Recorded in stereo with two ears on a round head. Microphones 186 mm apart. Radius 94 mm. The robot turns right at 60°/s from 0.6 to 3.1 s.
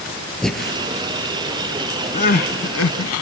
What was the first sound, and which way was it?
Breathing, 5° left (ahead or behind).